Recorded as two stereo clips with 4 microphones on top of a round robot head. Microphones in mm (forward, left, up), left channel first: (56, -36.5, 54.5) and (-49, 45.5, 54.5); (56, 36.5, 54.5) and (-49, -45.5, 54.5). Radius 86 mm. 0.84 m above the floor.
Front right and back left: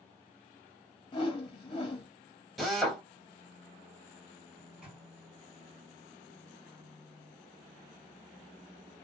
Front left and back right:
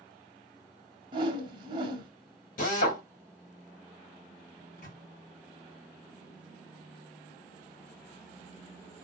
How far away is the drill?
About 2.5 m.